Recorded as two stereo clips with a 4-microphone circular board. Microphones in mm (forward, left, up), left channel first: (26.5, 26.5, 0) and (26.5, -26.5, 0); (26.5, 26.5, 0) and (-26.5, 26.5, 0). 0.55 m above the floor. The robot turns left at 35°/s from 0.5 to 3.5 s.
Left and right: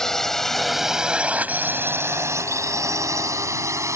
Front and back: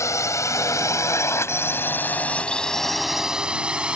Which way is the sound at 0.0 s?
10° left.